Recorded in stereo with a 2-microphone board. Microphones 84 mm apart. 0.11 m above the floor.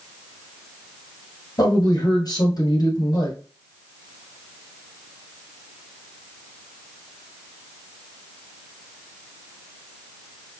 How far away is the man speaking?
About 2.5 m.